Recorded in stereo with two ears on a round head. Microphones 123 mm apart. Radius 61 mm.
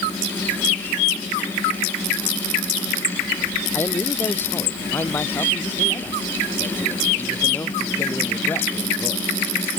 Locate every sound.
3.7 s a man speaking: 15° left (ahead or behind)